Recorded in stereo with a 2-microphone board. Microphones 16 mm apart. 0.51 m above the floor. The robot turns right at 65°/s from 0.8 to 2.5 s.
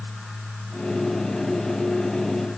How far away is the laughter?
No laughter in this recording.